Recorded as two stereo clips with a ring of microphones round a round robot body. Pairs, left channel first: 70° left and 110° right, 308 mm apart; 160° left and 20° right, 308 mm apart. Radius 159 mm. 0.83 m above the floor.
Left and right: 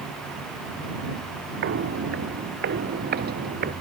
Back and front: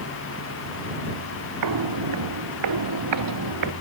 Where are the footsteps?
55° right; by 3.7 s 50° right.